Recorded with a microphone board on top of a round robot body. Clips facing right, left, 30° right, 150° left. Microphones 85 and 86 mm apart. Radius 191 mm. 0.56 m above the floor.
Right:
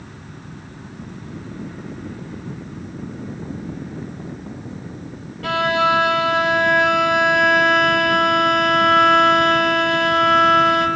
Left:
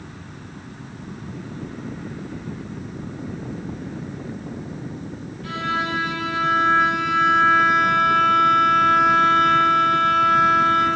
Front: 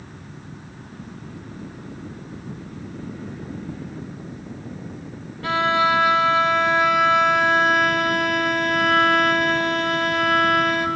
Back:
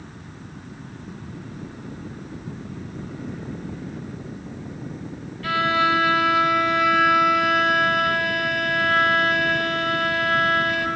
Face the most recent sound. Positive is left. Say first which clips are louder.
# right 8 dB, front 1 dB
turn(degrees=-95)